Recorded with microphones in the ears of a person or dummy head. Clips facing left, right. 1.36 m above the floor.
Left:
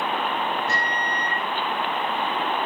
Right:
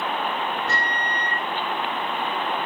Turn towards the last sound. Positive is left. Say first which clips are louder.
# even
turn(degrees=-75)  # may be behind; listen again after turning